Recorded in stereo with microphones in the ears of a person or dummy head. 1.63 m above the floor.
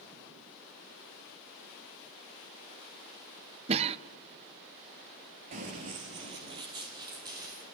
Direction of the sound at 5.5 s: 35° right (ahead or behind).